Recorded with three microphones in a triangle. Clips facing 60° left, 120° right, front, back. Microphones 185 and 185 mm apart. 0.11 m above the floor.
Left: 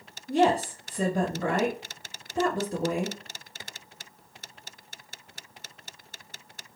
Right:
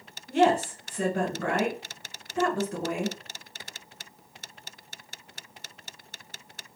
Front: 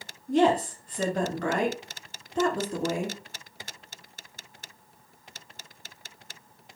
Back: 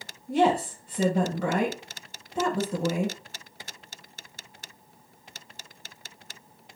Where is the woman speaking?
115° left, 1.1 m.